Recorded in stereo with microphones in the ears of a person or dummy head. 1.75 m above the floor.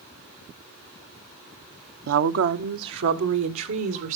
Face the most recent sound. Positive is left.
turn(degrees=-75)  # may be behind; listen again after turning